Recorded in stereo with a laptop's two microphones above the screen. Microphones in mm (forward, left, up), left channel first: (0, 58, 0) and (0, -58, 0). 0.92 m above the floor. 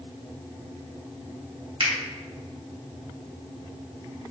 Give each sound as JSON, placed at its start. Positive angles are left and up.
{"t": 1.8, "sound": "a finger snap", "side_deg": -50, "distance_m": 1.5}